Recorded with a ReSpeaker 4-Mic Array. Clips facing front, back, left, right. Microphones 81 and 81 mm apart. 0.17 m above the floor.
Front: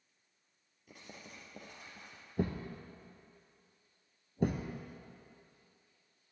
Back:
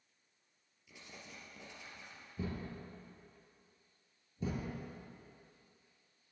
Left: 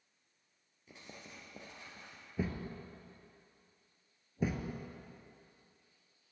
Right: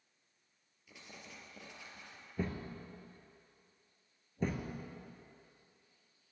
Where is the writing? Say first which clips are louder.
Front 2 dB, left 1 dB; 40° left, 2.5 m.